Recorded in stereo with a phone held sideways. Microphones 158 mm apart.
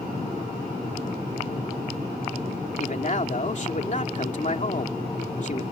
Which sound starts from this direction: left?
A man speaking, at 2.8 s.